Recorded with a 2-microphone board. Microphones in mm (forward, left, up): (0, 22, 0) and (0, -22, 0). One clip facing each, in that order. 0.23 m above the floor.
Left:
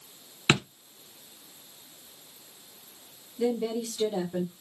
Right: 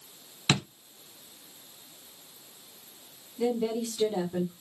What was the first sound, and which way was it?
A drawer, 30° left (ahead or behind).